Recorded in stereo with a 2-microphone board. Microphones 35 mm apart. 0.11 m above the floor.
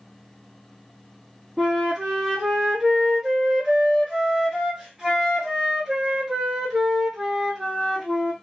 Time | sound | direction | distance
1.6 | a flute | 15° right (ahead or behind) | 1.0 m